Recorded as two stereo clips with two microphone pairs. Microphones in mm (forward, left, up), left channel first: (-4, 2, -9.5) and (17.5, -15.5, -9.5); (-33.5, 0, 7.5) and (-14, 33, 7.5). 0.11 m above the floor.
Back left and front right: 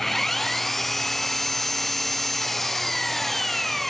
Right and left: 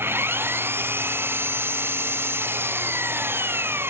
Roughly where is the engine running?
Ahead left.